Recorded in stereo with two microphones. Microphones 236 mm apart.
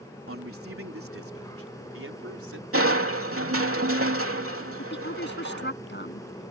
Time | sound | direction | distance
0.3 | a man speaking | 75° right (ahead or behind) | ?
2.7 | crushing | 75° right (ahead or behind) | ?
4.8 | a woman speaking | 50° left (ahead or behind) | ?